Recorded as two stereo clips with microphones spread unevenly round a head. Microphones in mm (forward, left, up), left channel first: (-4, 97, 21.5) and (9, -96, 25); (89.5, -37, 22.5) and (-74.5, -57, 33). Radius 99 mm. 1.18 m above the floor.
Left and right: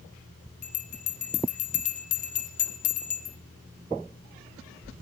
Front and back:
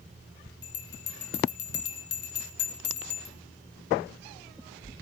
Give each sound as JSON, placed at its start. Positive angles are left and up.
{"t": 0.6, "sound": "a bell", "azimuth_deg": 45, "distance_m": 0.9}